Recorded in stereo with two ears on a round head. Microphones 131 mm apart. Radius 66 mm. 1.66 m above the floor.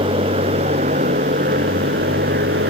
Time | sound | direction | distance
0.0 | a motorcycle | 35° right (ahead or behind) | ?